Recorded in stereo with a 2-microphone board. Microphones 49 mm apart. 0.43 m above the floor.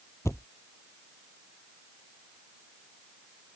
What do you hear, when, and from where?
0.2 s a thud: 75° left (ahead or behind)